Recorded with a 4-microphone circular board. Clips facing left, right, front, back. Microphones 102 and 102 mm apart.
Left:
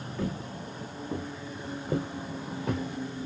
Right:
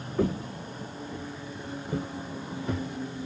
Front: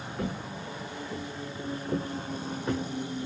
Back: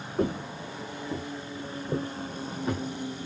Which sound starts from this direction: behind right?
Footsteps, at 0.2 s.